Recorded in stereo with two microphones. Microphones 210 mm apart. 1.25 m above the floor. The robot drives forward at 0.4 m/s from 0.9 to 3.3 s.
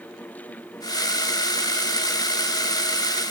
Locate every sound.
Only background noise.